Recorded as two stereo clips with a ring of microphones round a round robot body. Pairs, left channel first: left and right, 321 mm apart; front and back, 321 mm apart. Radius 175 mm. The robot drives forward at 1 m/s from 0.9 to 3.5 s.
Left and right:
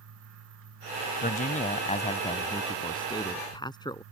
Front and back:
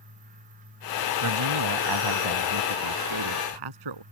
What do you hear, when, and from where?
1.2 s a man speaking: 155° left; by 4.0 s 165° left